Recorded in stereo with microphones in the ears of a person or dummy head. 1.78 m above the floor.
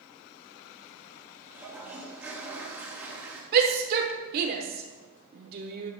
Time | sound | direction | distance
1.5 | a toilet flushing | 10° right (ahead or behind) | 2.5 m
3.5 | a shout | 55° right (ahead or behind) | 1.2 m